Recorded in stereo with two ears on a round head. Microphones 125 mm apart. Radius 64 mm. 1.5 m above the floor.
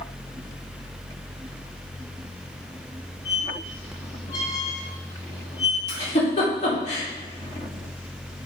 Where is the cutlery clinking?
No cutlery clinking in this recording.